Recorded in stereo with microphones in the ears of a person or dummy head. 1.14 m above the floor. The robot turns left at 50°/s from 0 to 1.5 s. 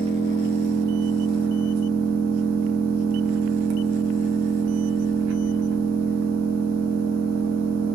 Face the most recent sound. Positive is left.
turn(degrees=-105)